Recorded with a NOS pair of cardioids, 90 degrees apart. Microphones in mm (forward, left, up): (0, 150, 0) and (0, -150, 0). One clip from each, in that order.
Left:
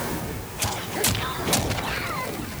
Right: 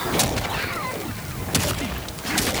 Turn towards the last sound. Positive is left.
No sound to turn to.